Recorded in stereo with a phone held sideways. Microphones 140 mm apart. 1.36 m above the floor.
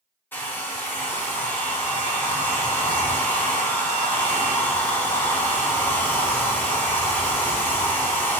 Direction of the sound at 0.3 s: 15° left (ahead or behind).